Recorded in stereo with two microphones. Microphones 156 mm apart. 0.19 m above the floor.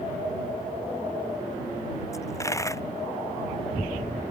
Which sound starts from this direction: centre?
A dropped coin, at 2.1 s.